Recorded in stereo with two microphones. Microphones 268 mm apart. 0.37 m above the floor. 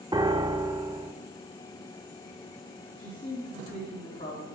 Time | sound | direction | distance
0.1 | a piano | 15° right (ahead or behind) | 0.6 m
3.0 | a man speaking | 30° left (ahead or behind) | 3.5 m